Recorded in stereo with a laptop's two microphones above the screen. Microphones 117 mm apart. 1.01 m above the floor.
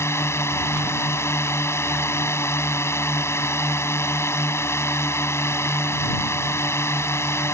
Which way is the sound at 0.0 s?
20° left (ahead or behind).